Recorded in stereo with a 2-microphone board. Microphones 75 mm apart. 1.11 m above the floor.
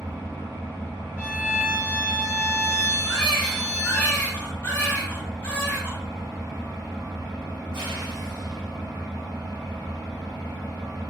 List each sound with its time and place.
0.0 s an engine running: 70° right (ahead or behind), 1.3 m
1.2 s a violin: 20° right (ahead or behind), 1.6 m
3.0 s a baby crying: 20° left (ahead or behind), 1.0 m